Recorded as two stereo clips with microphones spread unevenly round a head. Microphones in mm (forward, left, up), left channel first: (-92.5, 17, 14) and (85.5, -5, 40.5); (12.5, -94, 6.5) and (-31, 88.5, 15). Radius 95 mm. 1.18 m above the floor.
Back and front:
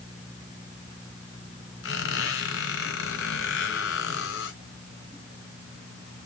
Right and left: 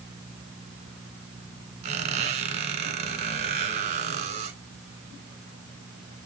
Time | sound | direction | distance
1.8 | a squeak | 155° left | 2.5 m